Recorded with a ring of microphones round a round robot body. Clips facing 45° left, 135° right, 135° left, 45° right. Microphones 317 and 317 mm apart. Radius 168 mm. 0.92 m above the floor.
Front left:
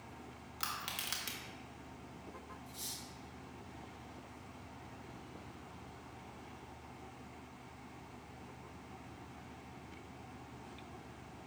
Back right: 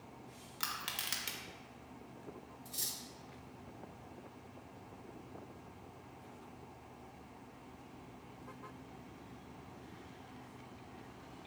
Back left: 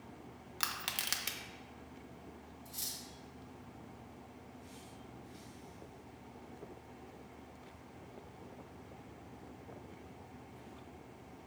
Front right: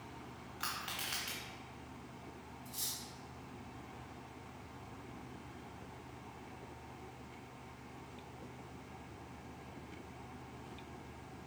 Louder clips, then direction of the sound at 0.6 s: Even, back left 1 dB; 135° left.